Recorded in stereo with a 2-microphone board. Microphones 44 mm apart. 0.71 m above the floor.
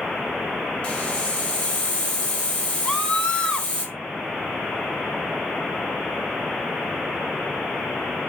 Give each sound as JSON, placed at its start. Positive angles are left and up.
{"t": 0.8, "sound": "a hiss", "side_deg": 30, "distance_m": 4.0}
{"t": 2.9, "sound": "a scream", "side_deg": 20, "distance_m": 2.5}